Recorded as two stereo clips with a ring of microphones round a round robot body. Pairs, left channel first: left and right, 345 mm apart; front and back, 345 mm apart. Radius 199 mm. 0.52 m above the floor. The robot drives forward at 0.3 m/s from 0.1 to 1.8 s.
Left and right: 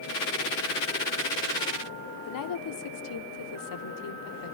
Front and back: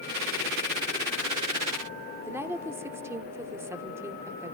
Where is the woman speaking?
100° left, 1.3 m.